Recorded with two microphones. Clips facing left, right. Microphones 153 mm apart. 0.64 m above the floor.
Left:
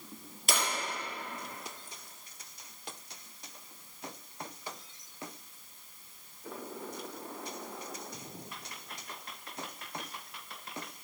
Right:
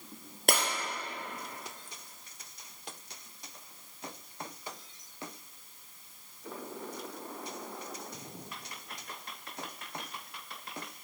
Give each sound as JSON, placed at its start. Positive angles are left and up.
{"t": 0.5, "sound": "breaking glass", "side_deg": -60, "distance_m": 3.0}